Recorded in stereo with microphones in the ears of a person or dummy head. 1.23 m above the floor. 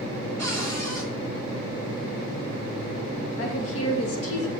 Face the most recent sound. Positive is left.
turn(degrees=75)  # may be behind; listen again after turning